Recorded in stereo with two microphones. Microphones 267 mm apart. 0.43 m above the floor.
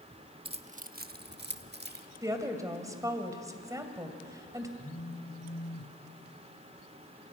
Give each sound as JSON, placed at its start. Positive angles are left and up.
{"t": 0.5, "sound": "keys jangling", "side_deg": -20, "distance_m": 0.7}
{"t": 2.2, "sound": "a woman speaking", "side_deg": -15, "distance_m": 2.5}
{"t": 4.8, "sound": "a phone buzzing", "side_deg": 25, "distance_m": 4.5}